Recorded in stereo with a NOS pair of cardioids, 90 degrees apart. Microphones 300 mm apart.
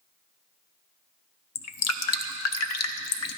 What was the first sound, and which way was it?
Dripping, 55° left.